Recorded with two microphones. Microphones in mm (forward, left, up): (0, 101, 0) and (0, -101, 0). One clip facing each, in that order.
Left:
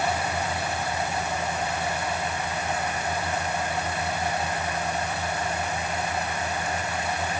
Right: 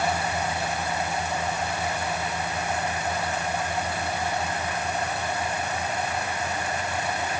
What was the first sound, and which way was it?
Only background noise.